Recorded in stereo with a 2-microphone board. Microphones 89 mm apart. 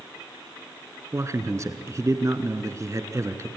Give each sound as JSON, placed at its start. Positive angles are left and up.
{"t": 1.1, "sound": "a man speaking", "side_deg": -35, "distance_m": 1.4}